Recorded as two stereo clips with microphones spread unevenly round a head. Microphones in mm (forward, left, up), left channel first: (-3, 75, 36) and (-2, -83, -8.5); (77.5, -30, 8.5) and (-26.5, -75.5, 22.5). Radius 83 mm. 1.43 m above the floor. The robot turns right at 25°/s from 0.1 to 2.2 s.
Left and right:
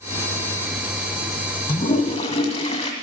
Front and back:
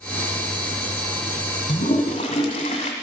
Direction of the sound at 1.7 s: 55° left.